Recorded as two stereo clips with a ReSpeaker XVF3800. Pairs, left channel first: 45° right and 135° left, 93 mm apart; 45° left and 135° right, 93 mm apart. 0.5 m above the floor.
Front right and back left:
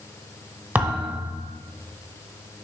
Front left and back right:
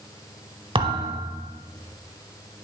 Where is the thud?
150° right, 1.0 m.